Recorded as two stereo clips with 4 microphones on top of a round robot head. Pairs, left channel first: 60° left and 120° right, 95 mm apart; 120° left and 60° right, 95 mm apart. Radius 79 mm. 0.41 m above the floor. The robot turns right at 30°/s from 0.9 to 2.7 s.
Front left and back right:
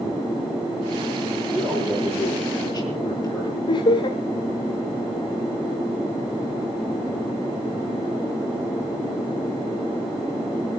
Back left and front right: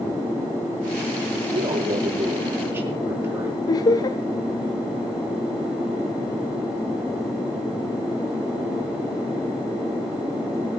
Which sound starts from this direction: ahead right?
A man speaking, at 1.5 s.